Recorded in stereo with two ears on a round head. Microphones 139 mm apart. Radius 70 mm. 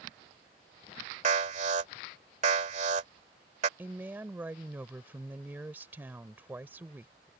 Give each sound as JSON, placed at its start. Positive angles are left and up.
{"t": 1.2, "sound": "an alarm", "side_deg": -45}
{"t": 3.8, "sound": "a woman speaking", "side_deg": -15}